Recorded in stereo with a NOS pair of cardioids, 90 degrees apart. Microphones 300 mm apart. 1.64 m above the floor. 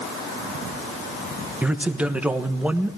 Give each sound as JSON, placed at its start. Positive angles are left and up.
{"t": 1.6, "sound": "a man speaking", "azimuth_deg": -5, "distance_m": 1.4}